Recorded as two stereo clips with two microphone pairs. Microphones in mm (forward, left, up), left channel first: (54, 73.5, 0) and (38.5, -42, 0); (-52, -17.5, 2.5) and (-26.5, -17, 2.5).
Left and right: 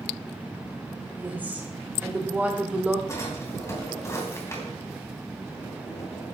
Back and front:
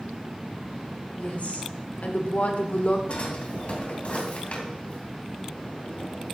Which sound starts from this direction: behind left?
A drawer, at 3.1 s.